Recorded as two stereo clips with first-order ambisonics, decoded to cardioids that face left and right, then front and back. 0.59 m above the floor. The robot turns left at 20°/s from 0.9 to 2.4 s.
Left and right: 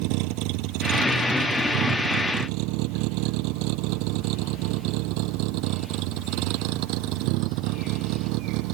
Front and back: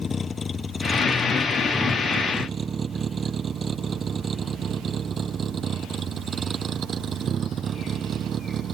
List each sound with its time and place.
0.0 s a vehicle: 75° right; by 8.8 s 115° right